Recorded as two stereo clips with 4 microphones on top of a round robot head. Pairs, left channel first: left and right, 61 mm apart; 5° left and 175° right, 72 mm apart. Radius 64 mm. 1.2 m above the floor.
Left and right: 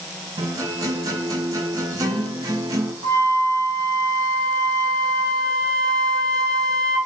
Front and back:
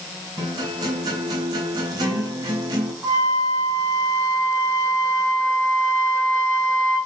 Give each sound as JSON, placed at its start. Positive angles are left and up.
{"t": 0.4, "sound": "a guitar", "azimuth_deg": -135, "distance_m": 5.0}
{"t": 3.0, "sound": "a flute", "azimuth_deg": -125, "distance_m": 4.5}